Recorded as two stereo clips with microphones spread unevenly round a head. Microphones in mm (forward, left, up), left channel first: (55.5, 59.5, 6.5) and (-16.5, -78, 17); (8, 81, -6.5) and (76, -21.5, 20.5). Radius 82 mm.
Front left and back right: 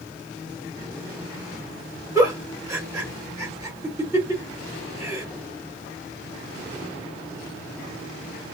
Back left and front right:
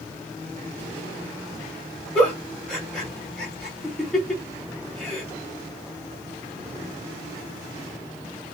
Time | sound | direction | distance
2.1 | a giggle | 120° right | 1.2 m